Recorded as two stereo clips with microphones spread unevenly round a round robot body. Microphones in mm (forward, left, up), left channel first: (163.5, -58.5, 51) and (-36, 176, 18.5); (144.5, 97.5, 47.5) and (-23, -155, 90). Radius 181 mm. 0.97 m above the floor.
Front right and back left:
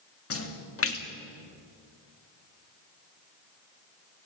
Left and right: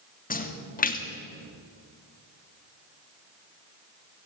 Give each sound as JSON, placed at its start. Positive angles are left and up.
{"t": 0.3, "sound": "a splash", "azimuth_deg": -5, "distance_m": 2.5}